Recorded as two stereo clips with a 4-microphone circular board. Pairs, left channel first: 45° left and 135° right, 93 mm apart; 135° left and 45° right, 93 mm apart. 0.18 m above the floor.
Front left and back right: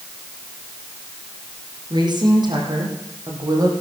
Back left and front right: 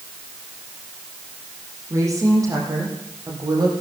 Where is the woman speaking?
100° right, 7 m; by 3.7 s 90° right, 6.5 m.